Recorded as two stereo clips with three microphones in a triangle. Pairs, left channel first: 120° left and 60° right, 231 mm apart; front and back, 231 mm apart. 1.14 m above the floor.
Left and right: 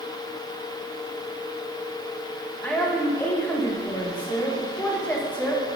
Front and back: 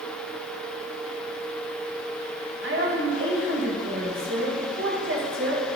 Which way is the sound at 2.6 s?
155° right.